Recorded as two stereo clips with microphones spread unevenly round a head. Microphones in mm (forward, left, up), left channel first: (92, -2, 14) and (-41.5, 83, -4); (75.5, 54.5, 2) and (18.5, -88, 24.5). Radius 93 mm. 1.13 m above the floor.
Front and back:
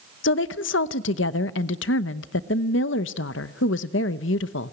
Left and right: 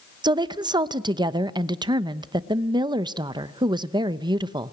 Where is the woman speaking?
50° right, 0.9 m.